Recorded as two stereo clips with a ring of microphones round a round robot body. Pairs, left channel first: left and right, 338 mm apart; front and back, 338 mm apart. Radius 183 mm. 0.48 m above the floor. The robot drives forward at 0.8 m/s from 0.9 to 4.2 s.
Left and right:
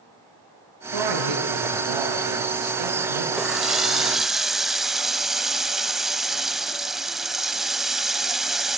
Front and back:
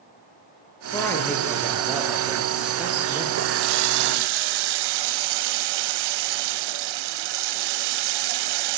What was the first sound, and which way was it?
A man speaking, 85° right.